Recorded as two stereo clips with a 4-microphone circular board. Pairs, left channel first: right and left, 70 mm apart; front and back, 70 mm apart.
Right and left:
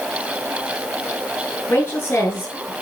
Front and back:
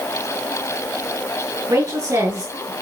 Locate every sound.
1.7 s a woman speaking: 145° right, 7 m